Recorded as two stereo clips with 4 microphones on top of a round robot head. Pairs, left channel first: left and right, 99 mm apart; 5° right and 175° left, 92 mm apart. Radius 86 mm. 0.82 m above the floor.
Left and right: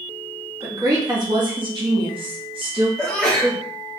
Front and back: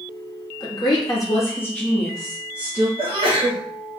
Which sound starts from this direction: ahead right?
A woman speaking, at 0.6 s.